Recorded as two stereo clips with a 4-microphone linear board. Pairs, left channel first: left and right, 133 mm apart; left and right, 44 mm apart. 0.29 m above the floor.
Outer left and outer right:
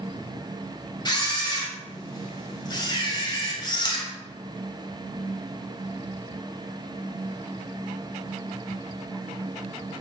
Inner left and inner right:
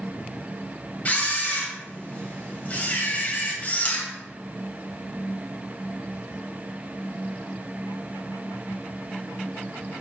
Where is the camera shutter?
35° left (ahead or behind), 1.9 m.